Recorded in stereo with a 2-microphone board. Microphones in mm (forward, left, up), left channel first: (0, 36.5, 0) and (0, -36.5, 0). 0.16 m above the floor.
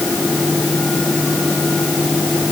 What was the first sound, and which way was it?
Only background noise.